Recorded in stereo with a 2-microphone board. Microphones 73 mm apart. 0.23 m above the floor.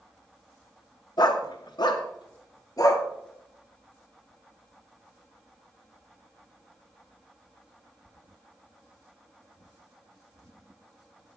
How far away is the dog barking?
About 1.5 m.